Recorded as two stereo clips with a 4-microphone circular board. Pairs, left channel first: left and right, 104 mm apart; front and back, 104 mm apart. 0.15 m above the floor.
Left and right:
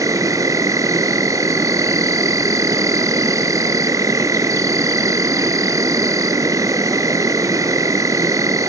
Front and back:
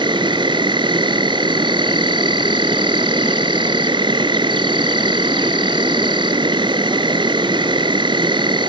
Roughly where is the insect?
Behind right.